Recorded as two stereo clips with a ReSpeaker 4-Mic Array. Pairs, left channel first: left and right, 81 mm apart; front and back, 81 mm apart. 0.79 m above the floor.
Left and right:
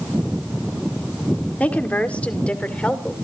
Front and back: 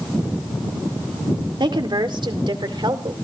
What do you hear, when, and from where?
1.6 s a woman speaking: 160° left, 1.9 m; by 3.1 s 165° left, 2.5 m